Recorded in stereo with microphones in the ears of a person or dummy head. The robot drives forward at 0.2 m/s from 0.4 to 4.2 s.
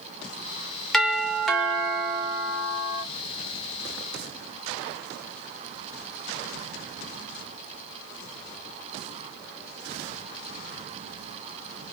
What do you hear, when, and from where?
0.9 s a doorbell: centre (ahead or behind), 0.5 m